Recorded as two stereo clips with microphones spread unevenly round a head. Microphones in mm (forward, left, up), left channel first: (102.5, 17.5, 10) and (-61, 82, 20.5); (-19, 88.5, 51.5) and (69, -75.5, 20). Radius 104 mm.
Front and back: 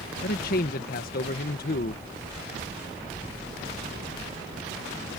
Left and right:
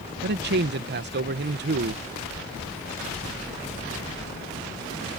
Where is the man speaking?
60° right.